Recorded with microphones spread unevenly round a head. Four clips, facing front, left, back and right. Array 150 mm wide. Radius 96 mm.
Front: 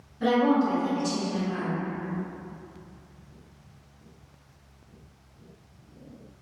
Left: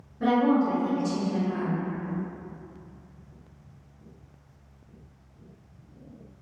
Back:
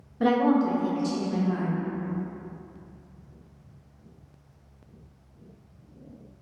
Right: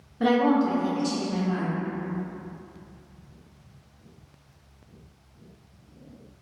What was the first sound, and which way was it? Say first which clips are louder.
A woman speaking: right 1 dB, back 1 dB; 155° right.